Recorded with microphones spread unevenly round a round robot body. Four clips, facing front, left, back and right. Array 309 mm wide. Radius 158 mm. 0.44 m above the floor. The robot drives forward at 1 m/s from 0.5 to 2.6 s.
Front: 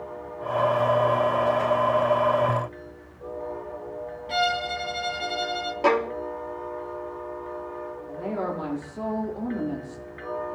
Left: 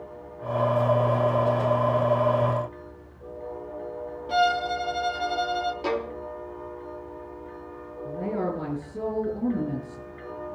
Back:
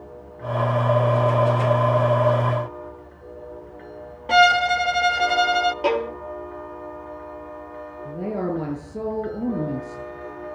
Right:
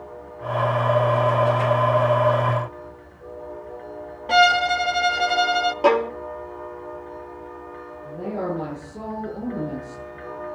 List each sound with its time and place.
4.3 s a violin: 170° right, 0.5 m
5.8 s a violin: 85° right, 1.2 m
8.1 s a woman speaking: 165° left, 7 m